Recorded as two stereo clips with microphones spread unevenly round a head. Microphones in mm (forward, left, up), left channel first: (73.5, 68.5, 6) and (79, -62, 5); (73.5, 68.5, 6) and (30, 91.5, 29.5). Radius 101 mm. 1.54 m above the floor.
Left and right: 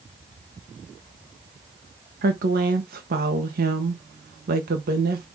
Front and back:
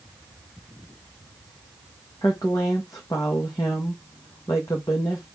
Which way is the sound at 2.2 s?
105° right.